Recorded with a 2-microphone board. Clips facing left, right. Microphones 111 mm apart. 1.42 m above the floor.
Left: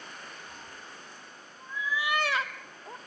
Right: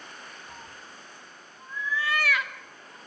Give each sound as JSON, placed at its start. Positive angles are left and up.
{"t": 0.5, "sound": "a cat meowing", "side_deg": -30, "distance_m": 2.5}